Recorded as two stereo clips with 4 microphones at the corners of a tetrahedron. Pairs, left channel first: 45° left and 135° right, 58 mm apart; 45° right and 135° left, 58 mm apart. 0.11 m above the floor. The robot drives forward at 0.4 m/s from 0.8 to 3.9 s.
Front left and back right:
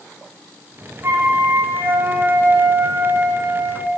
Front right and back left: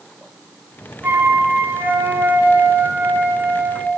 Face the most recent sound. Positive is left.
turn(degrees=-175)